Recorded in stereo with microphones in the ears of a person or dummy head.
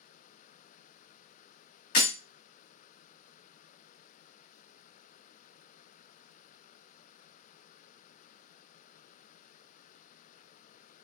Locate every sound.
1.9 s breaking glass: 45° left (ahead or behind), 2 m